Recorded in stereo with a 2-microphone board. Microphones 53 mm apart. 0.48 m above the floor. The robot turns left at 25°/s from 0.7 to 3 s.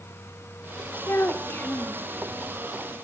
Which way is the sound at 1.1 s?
50° left (ahead or behind).